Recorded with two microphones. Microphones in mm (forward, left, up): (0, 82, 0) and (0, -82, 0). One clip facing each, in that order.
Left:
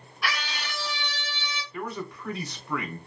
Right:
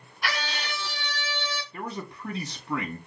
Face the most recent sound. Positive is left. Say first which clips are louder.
# left 2 dB
turn(degrees=-25)  # may be behind; listen again after turning